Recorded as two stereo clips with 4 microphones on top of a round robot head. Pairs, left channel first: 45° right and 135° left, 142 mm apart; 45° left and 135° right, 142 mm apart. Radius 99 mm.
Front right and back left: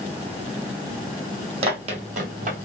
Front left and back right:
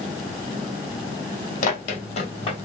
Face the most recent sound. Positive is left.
turn(degrees=105)